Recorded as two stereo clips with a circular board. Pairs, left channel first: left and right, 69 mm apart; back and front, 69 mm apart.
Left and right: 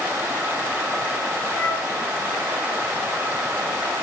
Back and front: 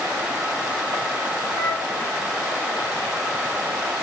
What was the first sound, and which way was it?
A flute, 135° left.